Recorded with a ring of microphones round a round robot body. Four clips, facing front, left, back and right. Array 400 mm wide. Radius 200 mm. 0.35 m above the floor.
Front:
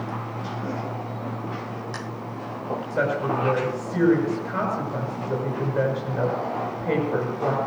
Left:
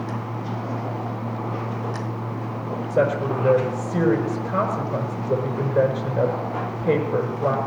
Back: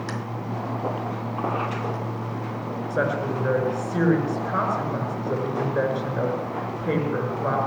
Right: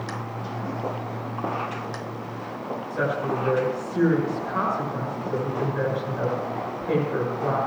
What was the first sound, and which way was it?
A woman speaking, 105° left.